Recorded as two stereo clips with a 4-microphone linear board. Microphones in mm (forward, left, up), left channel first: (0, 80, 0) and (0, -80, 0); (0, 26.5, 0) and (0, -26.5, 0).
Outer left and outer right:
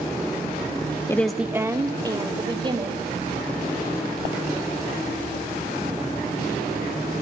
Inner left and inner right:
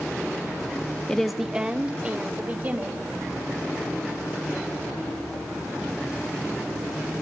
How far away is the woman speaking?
About 0.7 m.